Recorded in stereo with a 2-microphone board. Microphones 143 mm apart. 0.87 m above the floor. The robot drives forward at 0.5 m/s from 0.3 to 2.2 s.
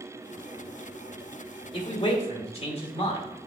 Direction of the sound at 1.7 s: 40° left (ahead or behind).